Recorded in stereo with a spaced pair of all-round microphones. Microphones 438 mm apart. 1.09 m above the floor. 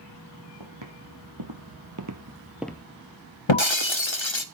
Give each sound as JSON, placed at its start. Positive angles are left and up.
{"t": 0.6, "sound": "footsteps", "side_deg": -70, "distance_m": 3.0}
{"t": 3.5, "sound": "breaking glass", "side_deg": 80, "distance_m": 1.0}